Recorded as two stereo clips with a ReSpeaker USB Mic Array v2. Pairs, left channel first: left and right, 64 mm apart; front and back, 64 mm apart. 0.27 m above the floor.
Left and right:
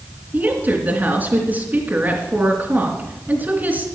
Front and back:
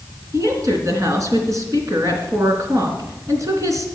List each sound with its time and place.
0.3 s a woman speaking: 150° right, 3 m